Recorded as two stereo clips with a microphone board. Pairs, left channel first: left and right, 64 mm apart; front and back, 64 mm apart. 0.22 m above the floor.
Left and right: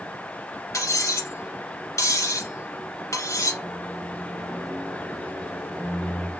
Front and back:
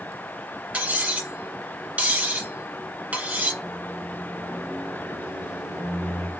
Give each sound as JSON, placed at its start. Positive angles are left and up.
{"t": 0.7, "sound": "cutlery clinking", "azimuth_deg": 115, "distance_m": 1.6}
{"t": 3.6, "sound": "a microwave", "azimuth_deg": -125, "distance_m": 0.9}